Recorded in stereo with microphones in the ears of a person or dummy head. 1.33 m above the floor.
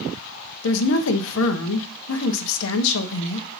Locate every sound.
0.6 s a woman speaking: 80° left, 1.1 m